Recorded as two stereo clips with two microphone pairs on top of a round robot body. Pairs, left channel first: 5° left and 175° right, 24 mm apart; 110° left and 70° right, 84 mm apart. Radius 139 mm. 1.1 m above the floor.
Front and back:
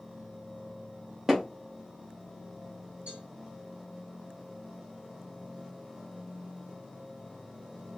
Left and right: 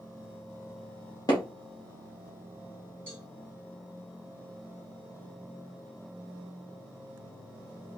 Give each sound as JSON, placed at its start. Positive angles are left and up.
{"t": 1.3, "sound": "hammering", "azimuth_deg": 125, "distance_m": 0.6}
{"t": 3.1, "sound": "a cowbell", "azimuth_deg": 180, "distance_m": 2.5}